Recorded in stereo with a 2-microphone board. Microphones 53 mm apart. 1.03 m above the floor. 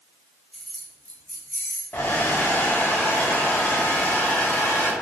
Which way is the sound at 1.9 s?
40° left (ahead or behind).